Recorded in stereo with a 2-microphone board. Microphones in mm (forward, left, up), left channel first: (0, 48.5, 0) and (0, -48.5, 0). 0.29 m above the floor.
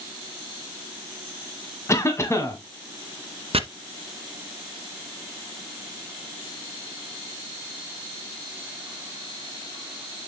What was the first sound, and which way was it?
A cough, 30° left (ahead or behind).